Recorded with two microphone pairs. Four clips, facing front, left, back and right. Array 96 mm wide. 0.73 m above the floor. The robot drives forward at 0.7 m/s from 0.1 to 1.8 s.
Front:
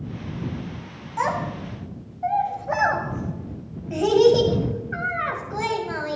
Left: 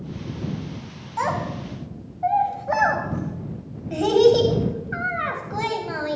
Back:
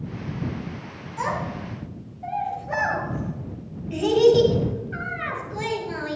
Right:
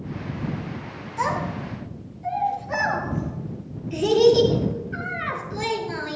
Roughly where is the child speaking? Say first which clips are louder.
Left 1 dB, front 3 dB; ahead left.